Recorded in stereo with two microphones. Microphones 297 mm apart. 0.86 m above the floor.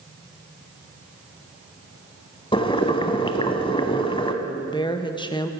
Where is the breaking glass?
I don't hear breaking glass.